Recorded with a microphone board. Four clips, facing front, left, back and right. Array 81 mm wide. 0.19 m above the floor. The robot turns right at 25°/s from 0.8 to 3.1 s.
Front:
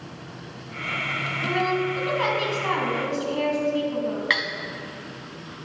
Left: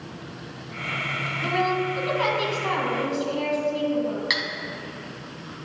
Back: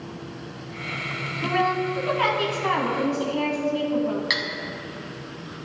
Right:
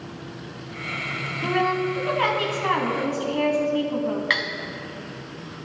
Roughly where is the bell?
I don't hear a bell.